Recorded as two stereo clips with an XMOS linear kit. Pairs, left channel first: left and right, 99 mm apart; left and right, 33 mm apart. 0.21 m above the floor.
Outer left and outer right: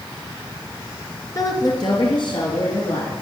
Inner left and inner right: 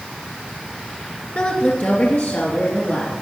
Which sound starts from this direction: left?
A woman speaking, at 1.4 s.